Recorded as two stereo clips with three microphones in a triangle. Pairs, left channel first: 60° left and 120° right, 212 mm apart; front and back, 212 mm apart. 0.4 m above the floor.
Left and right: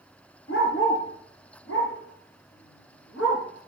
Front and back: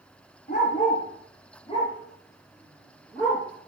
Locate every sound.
0.5 s a dog barking: 45° left, 4 m; by 3.4 s 85° left, 4 m